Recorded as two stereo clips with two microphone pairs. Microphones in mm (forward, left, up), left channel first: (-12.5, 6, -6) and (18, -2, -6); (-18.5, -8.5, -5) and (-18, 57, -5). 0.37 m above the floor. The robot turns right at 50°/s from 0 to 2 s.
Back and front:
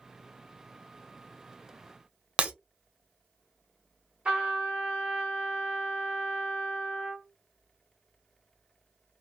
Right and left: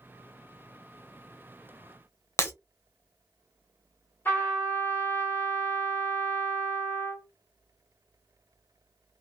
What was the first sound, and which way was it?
Breaking glass, 60° right.